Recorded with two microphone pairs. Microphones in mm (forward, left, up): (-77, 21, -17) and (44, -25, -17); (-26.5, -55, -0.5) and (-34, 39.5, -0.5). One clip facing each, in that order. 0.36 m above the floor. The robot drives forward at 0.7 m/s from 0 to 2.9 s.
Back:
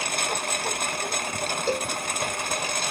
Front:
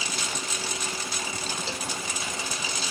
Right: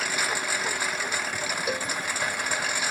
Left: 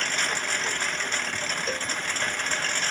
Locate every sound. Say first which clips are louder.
0.0 s a lawn mower: back 5 dB, right 1 dB; 170° right; by 2.9 s 165° right
1.7 s a cowbell: back 8 dB, right 3 dB; 165° right